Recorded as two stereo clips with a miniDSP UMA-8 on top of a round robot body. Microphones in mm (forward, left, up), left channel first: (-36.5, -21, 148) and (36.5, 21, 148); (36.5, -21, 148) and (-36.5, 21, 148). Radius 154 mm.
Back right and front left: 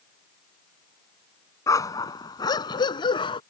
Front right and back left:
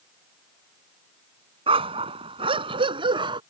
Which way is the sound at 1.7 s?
155° left.